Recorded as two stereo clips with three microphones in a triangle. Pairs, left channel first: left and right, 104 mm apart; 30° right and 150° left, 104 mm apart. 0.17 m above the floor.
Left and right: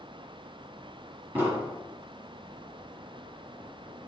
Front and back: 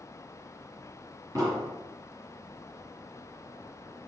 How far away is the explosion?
About 3 m.